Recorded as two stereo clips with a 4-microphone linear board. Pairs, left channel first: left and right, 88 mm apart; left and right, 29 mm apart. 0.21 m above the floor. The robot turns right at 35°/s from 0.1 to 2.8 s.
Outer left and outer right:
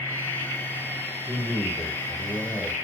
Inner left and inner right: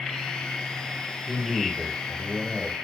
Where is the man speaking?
95° right, 1.4 m; by 2.8 s 45° right, 1.4 m.